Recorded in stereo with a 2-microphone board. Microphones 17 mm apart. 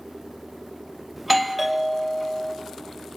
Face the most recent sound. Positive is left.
turn(degrees=-5)  # may be behind; listen again after turning